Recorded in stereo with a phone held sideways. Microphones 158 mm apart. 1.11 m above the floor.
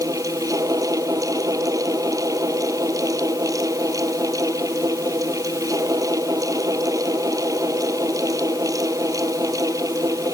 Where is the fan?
20° right (ahead or behind).